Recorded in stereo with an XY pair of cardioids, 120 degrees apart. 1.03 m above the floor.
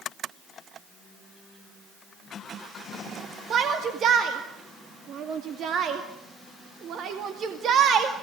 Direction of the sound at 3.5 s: 55° right.